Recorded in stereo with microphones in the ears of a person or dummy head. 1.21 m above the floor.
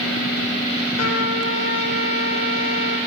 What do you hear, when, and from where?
1.0 s a trumpet: 85° left, 5 m